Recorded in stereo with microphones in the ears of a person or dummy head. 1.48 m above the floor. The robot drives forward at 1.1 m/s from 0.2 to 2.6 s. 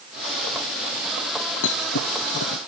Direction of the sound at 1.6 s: 75° left (ahead or behind).